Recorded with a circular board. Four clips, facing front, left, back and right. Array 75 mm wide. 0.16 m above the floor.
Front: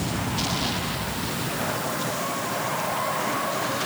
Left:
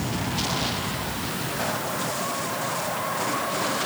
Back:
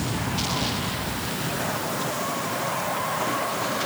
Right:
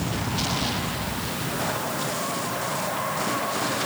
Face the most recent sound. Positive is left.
No sound to turn to.